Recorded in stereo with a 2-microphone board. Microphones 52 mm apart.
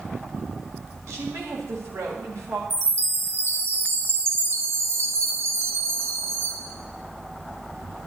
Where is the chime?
60° right (ahead or behind), 0.9 m.